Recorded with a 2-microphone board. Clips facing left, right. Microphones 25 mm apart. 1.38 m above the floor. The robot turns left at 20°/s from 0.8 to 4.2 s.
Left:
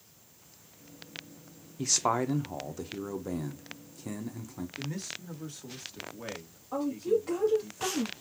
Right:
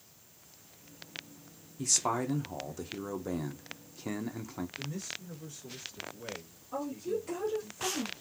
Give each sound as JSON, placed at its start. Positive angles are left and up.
{"t": 1.8, "sound": "a man speaking", "azimuth_deg": 25, "distance_m": 0.9}
{"t": 4.8, "sound": "a man speaking", "side_deg": 60, "distance_m": 2.0}
{"t": 6.7, "sound": "a woman speaking", "side_deg": 50, "distance_m": 2.5}